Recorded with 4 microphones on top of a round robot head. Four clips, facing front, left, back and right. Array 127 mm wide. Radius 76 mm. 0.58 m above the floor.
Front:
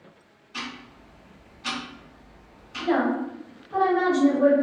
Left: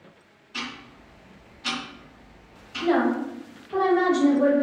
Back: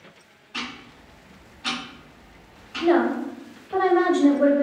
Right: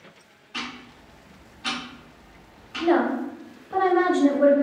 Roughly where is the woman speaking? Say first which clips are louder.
Right 1 dB, back 4 dB; behind right.